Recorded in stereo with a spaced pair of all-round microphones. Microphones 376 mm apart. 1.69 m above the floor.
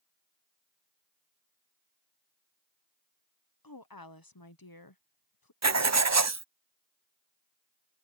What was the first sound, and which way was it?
A woman speaking, 65° left (ahead or behind).